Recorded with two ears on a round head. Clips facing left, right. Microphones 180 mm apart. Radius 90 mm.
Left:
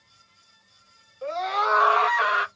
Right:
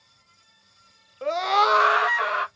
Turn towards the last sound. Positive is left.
turn(degrees=15)  # may be behind; listen again after turning